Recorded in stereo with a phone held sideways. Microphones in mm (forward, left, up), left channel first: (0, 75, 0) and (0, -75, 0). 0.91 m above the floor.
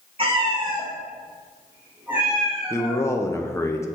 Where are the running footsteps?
No running footsteps in this recording.